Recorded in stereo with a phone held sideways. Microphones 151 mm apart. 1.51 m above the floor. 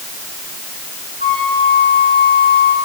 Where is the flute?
80° right, 6 m.